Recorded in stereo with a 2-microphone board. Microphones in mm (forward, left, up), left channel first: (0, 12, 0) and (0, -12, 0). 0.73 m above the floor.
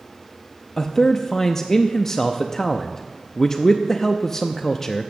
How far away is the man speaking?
About 0.5 m.